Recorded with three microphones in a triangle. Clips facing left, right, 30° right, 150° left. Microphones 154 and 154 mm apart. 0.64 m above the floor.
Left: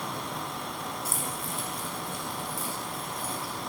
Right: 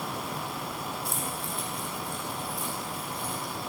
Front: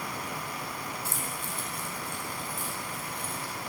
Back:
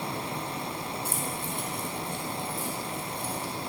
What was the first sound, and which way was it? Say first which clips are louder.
Keys jangling: even, back 4 dB; 175° left.